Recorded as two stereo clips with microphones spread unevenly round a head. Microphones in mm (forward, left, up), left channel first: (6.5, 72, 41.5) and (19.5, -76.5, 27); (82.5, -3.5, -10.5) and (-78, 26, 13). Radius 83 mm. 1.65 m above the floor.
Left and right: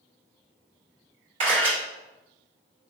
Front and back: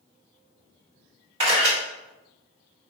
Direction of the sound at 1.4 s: 140° right.